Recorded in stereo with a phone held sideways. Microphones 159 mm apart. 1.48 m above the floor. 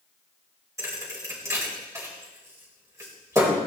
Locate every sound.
0.8 s a thud: 20° right (ahead or behind), 1.9 m